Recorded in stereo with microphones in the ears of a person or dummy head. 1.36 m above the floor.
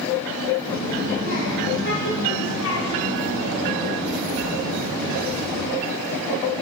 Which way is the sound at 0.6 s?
45° left (ahead or behind).